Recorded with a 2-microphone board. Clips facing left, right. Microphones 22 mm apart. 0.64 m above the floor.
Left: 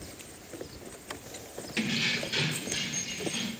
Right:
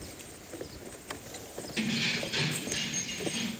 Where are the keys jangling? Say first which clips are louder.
Left 1 dB; 40° left (ahead or behind), 1.0 m; by 3.5 s 30° left (ahead or behind), 2 m.